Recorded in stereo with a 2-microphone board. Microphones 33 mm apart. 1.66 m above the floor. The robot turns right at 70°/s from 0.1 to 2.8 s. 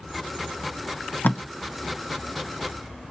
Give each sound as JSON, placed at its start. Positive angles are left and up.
{"t": 1.2, "sound": "tape being pulled", "side_deg": 75, "distance_m": 0.7}